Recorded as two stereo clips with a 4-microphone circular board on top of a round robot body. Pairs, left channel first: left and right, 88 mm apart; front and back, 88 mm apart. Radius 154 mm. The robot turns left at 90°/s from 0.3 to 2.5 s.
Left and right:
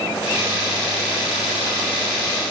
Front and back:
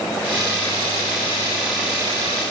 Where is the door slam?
No door slam in this recording.